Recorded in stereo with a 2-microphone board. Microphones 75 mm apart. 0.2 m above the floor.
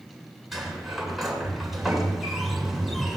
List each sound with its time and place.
0.5 s a sliding door: centre (ahead or behind), 2.5 m